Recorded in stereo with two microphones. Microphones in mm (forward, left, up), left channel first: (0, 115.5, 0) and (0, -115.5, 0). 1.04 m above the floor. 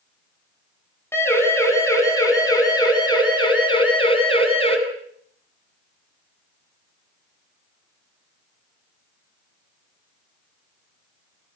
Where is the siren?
10° left (ahead or behind), 8.5 m; by 4.8 s 25° left (ahead or behind), 8.5 m.